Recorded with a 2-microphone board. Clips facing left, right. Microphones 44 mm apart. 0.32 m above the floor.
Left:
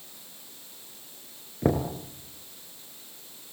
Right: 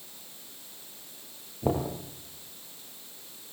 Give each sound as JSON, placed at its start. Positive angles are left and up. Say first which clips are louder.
{"t": 1.6, "sound": "knocking", "louder": "left 3 dB", "side_deg": 70, "distance_m": 4.0}